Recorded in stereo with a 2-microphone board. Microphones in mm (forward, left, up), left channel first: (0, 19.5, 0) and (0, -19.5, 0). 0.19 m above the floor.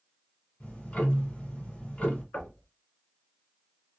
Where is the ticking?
35° left (ahead or behind), 1.5 m.